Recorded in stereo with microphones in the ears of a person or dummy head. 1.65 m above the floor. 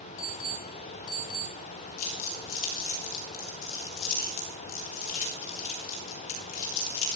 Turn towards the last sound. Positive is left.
turn(degrees=70)  # may be behind; listen again after turning